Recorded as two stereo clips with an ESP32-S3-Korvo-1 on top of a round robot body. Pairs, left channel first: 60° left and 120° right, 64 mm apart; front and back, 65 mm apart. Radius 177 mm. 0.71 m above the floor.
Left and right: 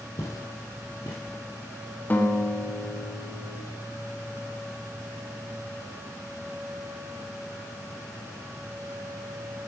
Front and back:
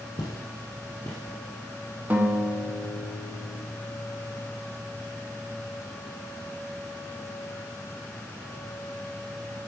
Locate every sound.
0.2 s footsteps: 30° left, 1.2 m; by 1.4 s 75° left, 1.3 m
2.1 s a guitar: 120° left, 1.4 m